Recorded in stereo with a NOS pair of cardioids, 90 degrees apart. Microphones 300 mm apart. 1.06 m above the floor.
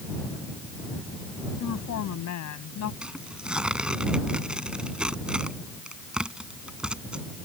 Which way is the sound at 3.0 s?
5° right.